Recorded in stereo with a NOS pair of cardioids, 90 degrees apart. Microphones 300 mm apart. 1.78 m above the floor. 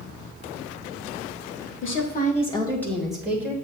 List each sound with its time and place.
1.8 s a woman speaking: 45° left, 1.7 m; by 3.5 s 10° right, 3 m